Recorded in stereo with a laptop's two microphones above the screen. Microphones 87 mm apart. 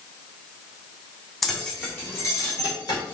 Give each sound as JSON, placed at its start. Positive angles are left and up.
{"t": 1.4, "sound": "keys jangling", "side_deg": 0, "distance_m": 1.6}